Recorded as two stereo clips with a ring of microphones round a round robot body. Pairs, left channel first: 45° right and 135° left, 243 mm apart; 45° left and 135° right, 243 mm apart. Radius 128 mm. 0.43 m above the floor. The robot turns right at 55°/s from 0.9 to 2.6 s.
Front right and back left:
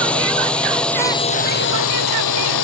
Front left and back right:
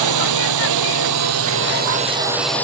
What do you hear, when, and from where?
0.0 s a drone: 130° right; by 2.6 s 40° right